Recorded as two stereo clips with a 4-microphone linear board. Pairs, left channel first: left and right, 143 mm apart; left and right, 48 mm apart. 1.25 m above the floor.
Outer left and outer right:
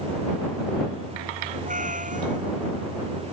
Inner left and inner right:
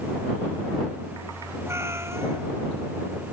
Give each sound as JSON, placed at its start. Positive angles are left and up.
{"t": 1.7, "sound": "a cat meowing", "side_deg": -65}